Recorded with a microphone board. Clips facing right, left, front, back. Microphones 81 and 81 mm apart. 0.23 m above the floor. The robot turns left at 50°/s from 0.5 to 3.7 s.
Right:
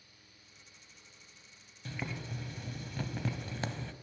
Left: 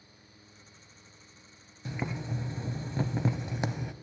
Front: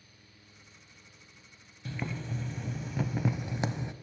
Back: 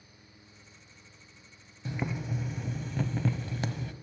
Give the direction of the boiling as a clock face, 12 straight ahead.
8 o'clock.